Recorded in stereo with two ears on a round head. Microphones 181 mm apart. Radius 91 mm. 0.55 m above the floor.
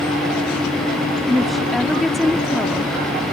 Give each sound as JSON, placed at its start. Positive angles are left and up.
{"t": 1.3, "sound": "a woman speaking", "side_deg": 0}